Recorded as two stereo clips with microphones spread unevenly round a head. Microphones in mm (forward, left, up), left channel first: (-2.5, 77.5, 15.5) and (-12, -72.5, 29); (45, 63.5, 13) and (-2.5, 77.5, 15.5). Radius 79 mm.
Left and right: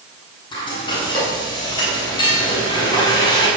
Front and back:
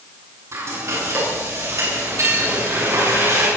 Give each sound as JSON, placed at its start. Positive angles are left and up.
{"t": 0.5, "sound": "frying", "azimuth_deg": 150, "distance_m": 8.0}